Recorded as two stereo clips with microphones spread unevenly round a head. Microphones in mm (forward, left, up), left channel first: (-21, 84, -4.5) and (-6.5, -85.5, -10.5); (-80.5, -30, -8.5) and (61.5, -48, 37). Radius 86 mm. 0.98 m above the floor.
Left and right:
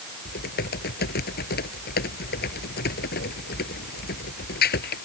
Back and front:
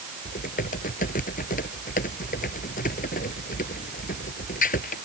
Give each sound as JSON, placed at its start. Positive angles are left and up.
{"t": 0.2, "sound": "typing on a keyboard", "azimuth_deg": 125}